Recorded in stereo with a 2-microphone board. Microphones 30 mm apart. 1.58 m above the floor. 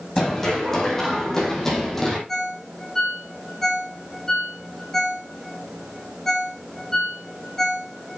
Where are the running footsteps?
15° left (ahead or behind), 5 m; by 2.2 s 10° left (ahead or behind), 3.5 m.